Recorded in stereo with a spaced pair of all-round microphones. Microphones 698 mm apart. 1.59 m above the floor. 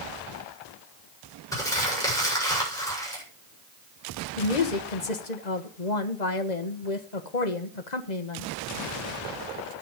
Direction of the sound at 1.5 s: 5° left (ahead or behind).